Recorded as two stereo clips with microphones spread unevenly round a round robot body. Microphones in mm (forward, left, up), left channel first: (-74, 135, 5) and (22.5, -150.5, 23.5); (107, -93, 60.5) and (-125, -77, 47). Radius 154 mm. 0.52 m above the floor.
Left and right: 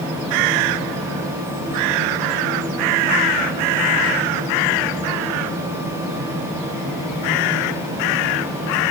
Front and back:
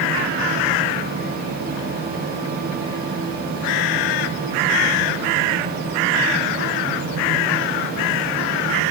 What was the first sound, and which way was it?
Only background noise.